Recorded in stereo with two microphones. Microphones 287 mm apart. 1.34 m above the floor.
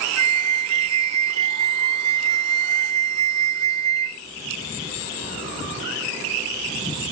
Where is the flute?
55° left (ahead or behind).